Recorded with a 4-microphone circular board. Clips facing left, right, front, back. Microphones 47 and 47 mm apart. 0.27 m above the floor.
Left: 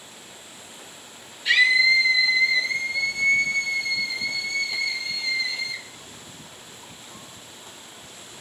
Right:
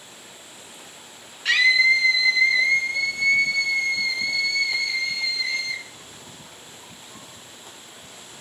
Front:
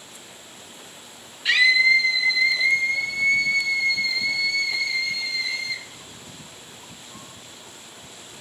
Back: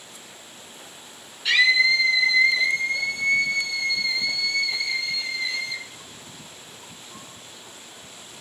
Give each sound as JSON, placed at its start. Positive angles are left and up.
{"t": 1.4, "sound": "a scream", "azimuth_deg": -70, "distance_m": 2.5}